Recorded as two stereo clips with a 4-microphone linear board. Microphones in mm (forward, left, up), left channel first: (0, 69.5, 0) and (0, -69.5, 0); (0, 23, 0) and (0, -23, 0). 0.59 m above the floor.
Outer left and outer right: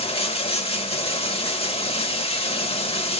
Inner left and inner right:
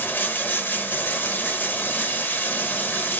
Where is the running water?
45° left (ahead or behind), 0.8 m.